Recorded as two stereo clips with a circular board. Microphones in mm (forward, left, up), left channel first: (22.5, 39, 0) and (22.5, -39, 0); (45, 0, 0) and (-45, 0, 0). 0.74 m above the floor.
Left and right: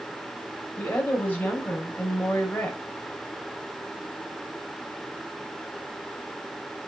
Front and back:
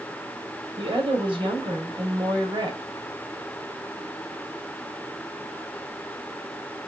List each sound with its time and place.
0.8 s a woman speaking: 160° left, 3 m